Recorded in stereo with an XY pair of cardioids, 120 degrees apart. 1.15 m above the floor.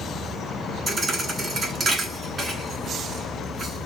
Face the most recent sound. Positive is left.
turn(degrees=-40)